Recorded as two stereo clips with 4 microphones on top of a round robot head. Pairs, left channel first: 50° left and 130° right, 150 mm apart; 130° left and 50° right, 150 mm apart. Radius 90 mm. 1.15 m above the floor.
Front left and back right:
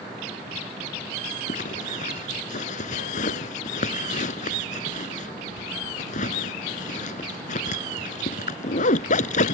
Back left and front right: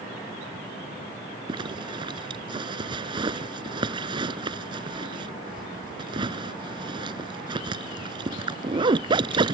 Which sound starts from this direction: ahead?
A zipper, at 1.5 s.